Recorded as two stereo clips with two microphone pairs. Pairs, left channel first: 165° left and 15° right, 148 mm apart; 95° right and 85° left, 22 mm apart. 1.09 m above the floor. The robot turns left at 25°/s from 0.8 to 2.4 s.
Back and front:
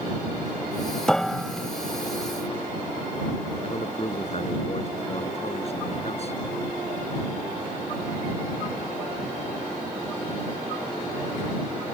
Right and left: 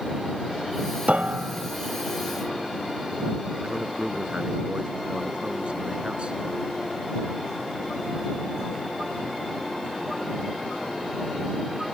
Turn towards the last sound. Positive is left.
turn(degrees=120)